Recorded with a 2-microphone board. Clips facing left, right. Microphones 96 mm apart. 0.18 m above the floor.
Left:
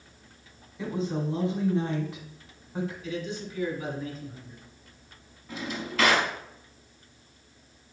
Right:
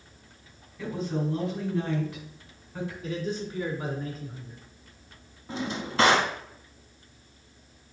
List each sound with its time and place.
0.8 s a woman speaking: 25° left (ahead or behind), 1.7 m
3.0 s a man speaking: 40° right (ahead or behind), 1.9 m
5.5 s a drawer: 30° right (ahead or behind), 0.7 m